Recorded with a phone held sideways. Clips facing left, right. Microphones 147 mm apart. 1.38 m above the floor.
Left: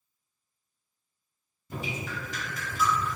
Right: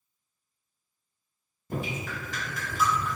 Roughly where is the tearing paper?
No tearing paper in this recording.